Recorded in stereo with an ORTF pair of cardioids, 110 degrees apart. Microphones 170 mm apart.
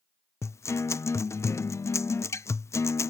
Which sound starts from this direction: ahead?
A guitar, at 0.4 s.